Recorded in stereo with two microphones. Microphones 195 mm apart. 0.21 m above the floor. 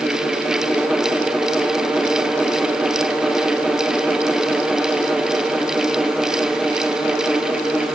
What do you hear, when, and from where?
Only background noise.